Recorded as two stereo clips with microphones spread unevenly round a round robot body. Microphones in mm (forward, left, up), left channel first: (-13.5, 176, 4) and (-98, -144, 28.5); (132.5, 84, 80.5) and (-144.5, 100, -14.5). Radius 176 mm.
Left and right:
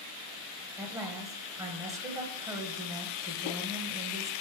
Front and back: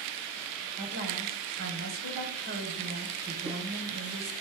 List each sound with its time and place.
0.8 s a woman speaking: 175° left, 1.4 m